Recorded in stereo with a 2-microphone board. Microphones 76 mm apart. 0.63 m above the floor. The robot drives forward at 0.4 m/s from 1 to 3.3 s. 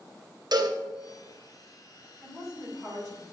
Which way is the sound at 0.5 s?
65° right (ahead or behind).